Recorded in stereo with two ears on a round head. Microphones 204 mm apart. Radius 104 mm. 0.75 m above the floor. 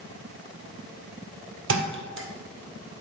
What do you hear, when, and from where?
1.7 s a thud: 60° right (ahead or behind), 1.9 m